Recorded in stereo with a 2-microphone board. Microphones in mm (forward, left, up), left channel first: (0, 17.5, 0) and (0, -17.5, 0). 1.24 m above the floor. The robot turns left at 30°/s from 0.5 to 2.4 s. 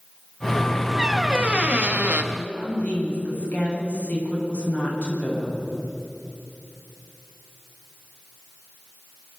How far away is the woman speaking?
About 9 m.